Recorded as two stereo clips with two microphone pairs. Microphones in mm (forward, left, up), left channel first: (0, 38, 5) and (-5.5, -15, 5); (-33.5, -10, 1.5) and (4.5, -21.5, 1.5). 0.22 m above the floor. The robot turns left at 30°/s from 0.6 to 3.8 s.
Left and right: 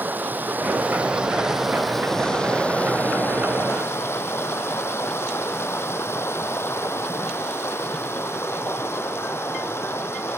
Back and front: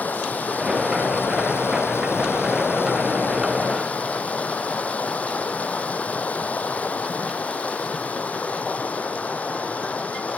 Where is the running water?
150° right, 0.9 m; by 10.4 s 115° left, 0.9 m.